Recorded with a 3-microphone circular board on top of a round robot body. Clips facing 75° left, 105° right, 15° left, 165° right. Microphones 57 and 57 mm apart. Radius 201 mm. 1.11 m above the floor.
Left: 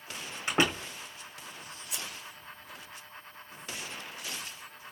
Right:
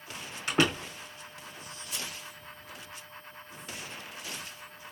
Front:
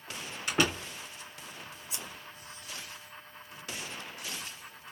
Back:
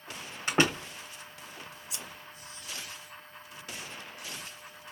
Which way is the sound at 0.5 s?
140° left.